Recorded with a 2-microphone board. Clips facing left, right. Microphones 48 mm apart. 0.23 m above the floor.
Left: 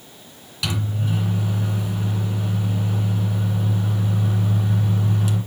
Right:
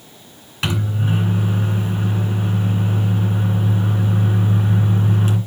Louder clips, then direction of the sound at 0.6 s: Right 4 dB; 40° right (ahead or behind).